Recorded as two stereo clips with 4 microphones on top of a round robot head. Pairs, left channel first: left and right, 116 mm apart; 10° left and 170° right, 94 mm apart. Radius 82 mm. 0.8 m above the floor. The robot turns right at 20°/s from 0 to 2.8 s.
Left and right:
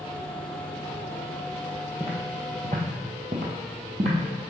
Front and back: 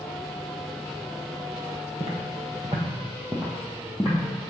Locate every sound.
2.0 s footsteps: 165° right, 1.4 m; by 4.2 s 70° right, 1.5 m